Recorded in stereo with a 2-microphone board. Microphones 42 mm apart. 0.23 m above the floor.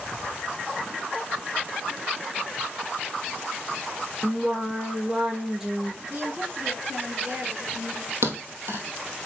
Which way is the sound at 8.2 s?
85° right.